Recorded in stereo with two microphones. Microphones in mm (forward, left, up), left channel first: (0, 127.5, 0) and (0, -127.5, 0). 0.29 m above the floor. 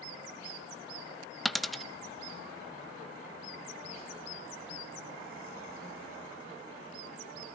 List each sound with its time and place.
1.4 s a dropped coin: centre (ahead or behind), 0.6 m